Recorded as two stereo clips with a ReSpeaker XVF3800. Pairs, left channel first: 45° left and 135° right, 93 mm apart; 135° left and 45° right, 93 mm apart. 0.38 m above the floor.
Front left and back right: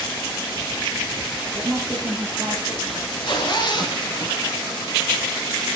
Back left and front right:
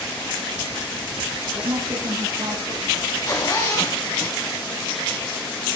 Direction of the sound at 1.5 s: 65° right.